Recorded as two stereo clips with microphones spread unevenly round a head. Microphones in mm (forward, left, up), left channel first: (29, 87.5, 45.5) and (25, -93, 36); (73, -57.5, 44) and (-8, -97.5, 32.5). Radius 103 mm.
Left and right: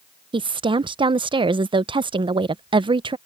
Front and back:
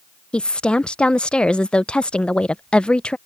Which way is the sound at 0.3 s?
60° right.